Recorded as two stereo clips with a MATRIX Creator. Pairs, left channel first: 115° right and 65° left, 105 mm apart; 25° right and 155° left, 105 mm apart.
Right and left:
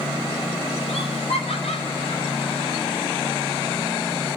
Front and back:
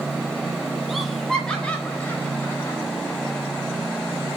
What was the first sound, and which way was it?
Laughter, 110° right.